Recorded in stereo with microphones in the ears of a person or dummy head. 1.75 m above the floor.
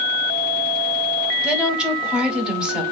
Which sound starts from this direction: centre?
A woman speaking, at 1.4 s.